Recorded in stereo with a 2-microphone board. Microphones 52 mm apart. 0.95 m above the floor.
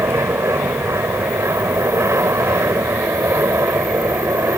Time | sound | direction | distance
0.0 | an aircraft | 65° right (ahead or behind) | ?